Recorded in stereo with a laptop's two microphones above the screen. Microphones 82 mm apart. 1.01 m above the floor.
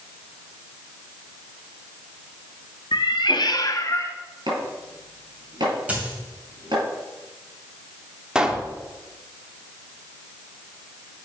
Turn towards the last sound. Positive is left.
turn(degrees=-10)  # may be behind; listen again after turning